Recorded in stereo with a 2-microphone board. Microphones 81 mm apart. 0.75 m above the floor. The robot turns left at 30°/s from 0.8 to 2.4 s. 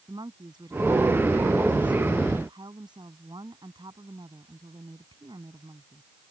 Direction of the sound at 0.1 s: 60° right.